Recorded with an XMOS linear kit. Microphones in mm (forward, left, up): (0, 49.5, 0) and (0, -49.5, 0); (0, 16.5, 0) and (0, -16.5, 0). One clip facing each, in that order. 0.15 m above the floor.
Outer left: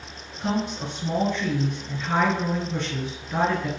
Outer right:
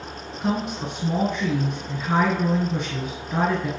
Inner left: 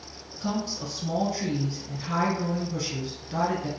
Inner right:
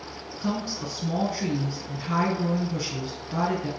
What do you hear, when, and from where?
0.4 s a woman speaking: 15° right (ahead or behind), 1.3 m